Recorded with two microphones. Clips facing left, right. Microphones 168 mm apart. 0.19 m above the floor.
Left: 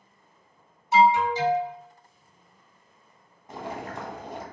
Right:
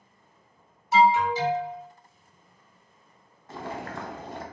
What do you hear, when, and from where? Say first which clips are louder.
0.9 s an alarm: left 1 dB; 25° left (ahead or behind), 1.9 m
3.5 s boiling: even; 15° left (ahead or behind), 0.6 m